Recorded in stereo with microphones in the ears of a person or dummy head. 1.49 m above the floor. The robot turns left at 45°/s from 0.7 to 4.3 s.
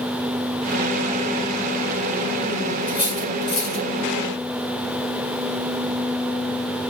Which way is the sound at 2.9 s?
20° left (ahead or behind).